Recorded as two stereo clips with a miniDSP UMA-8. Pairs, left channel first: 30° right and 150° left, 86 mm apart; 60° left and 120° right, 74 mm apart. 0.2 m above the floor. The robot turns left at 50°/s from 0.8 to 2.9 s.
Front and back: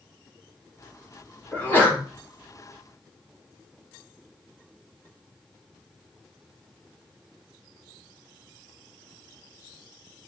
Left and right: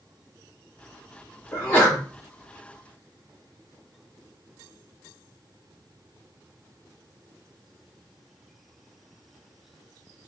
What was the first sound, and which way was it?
A sneeze, 20° left.